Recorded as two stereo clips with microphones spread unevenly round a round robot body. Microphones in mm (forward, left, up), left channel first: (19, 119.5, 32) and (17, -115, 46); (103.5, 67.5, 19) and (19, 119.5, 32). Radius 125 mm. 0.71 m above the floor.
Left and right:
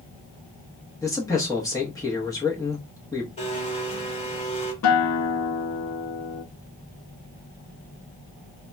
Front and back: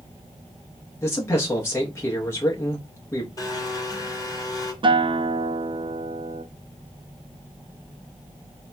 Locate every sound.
1.0 s a man speaking: 20° left, 0.9 m
3.4 s a blender: 25° left, 1.2 m
4.8 s a guitar: 105° left, 0.5 m